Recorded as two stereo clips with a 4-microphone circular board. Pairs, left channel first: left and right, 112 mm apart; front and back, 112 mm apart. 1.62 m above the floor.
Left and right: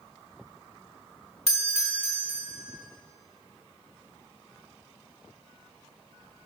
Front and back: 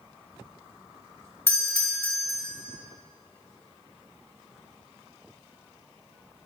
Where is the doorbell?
70° right, 0.9 m.